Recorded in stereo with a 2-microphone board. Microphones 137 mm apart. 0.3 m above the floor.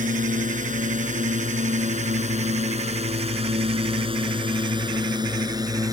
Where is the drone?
70° right (ahead or behind); by 5.9 s 25° right (ahead or behind).